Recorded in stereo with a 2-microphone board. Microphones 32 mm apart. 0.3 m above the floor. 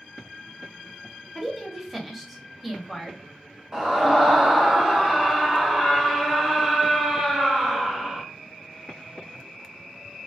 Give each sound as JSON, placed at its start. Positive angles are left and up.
{"t": 1.4, "sound": "a woman speaking", "side_deg": 0, "distance_m": 0.9}
{"t": 3.7, "sound": "a scream", "side_deg": -20, "distance_m": 1.0}